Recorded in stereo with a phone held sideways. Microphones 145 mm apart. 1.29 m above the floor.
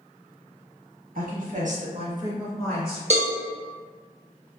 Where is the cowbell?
45° right (ahead or behind), 0.7 m.